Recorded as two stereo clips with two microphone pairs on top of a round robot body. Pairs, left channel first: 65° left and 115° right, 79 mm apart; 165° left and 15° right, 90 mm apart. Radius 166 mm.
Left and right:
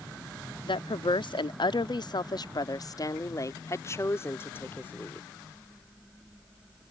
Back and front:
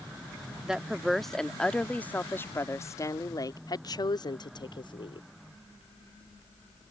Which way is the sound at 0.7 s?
65° left.